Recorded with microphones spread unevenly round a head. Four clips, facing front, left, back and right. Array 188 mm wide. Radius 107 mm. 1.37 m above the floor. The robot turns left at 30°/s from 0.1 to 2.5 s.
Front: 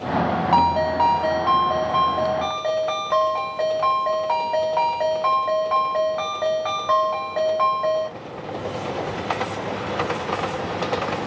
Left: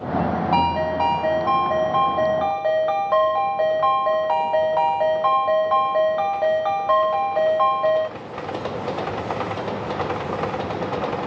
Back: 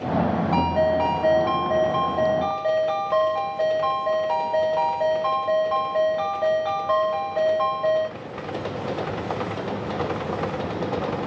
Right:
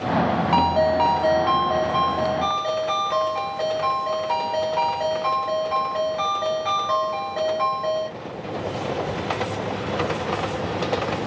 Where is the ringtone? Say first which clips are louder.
Right 2 dB, front 3 dB; 140° right, 0.9 m; by 8.1 s 160° left, 0.9 m.